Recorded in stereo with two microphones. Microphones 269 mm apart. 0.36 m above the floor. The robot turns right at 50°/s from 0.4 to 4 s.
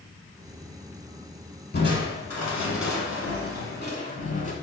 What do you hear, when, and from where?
1.7 s crushing: 35° left, 0.8 m; by 4.5 s 150° left, 0.8 m